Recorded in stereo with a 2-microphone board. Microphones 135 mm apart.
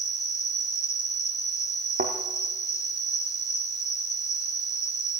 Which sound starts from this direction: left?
An insect, at 0.0 s.